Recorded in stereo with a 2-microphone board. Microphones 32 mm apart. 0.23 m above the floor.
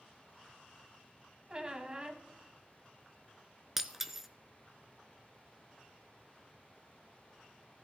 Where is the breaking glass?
10° right (ahead or behind), 0.7 m.